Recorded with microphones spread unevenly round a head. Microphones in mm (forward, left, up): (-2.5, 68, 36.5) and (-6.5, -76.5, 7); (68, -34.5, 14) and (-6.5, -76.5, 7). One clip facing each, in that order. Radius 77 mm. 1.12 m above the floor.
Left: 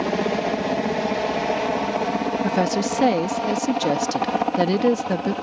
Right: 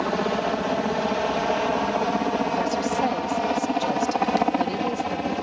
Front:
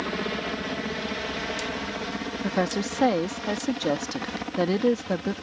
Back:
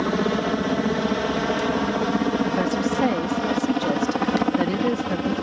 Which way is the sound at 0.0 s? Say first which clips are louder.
Left 2 dB, back 8 dB; 160° left.